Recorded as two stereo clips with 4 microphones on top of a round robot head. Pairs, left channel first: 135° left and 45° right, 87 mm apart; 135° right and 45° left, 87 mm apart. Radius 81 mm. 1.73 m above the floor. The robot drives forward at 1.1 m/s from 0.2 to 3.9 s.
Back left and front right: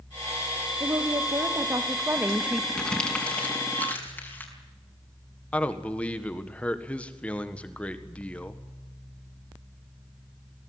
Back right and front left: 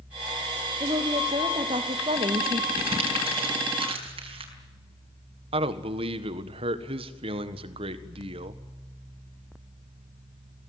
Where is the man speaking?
55° left, 1.7 m.